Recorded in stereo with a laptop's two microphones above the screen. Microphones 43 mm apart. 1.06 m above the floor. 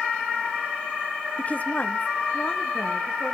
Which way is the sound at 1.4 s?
30° left (ahead or behind).